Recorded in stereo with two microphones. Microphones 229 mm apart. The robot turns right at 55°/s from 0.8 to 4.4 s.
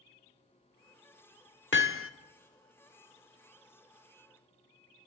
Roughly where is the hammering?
Left.